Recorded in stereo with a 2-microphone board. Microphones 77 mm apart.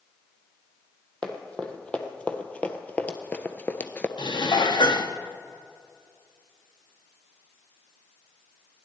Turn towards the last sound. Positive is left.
turn(degrees=85)